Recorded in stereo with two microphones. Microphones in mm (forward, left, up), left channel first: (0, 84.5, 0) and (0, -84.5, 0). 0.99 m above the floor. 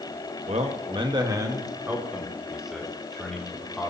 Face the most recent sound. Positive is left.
turn(degrees=5)  # may be behind; listen again after turning